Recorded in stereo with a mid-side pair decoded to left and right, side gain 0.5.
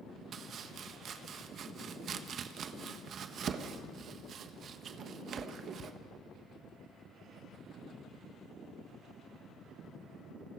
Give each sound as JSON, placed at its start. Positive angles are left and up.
{"t": 0.3, "sound": "chopping", "azimuth_deg": -55, "distance_m": 1.3}